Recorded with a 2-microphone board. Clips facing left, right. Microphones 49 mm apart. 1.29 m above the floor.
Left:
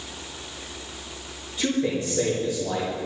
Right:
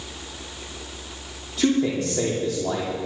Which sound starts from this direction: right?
A man speaking, at 1.6 s.